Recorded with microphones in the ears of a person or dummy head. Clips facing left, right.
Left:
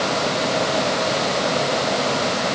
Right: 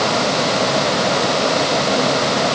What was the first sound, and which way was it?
Only background noise.